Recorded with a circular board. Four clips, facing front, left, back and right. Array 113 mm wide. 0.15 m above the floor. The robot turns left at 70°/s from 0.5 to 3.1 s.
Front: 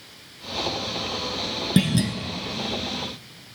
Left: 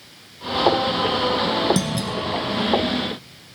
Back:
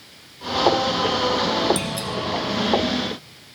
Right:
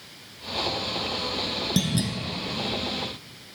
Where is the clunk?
15° left, 1.1 m; by 2.1 s 10° right, 1.1 m.